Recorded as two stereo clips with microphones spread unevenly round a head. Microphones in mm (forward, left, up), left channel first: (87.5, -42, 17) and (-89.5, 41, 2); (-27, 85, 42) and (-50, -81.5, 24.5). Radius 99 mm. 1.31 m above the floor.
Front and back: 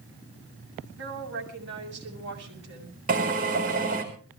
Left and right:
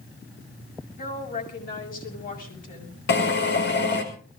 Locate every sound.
1.0 s a woman speaking: 120° left, 7 m
3.1 s a drill: 105° left, 5 m